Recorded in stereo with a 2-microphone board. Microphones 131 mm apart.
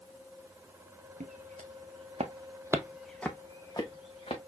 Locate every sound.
1.2 s footsteps: 75° right (ahead or behind), 1.5 m; by 4.4 s 45° left (ahead or behind), 1.5 m